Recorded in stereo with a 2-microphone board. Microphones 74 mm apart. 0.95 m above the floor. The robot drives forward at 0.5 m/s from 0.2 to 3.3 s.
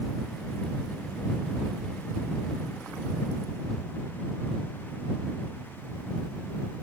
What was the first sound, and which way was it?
Only background noise.